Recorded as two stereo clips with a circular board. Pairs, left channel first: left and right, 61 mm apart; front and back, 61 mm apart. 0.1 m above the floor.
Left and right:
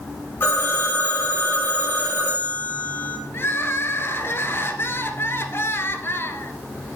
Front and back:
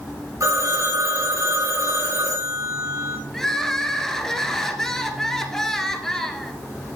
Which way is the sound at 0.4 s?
145° left.